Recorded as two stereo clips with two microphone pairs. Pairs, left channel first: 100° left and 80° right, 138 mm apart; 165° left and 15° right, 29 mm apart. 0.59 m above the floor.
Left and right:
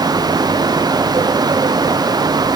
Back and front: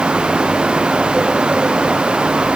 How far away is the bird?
I don't hear a bird.